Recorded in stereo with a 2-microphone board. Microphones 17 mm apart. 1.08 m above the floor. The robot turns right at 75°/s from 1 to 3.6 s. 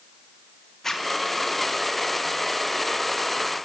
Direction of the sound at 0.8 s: 25° left (ahead or behind).